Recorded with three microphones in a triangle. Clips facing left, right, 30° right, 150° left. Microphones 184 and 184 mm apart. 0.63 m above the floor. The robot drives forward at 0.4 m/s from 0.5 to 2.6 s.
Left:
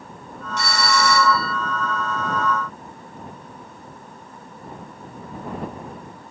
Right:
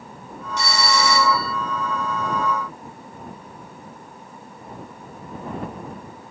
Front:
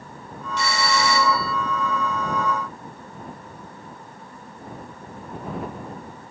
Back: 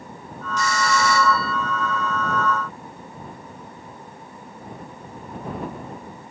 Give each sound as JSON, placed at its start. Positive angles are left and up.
{"t": 0.6, "sound": "a doorbell", "azimuth_deg": 110}